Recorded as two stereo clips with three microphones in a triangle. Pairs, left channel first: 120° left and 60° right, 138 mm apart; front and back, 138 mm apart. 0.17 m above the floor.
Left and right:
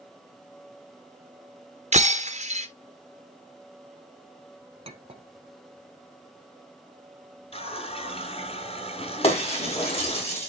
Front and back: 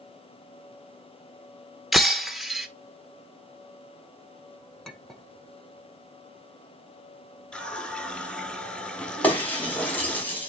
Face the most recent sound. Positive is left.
turn(degrees=80)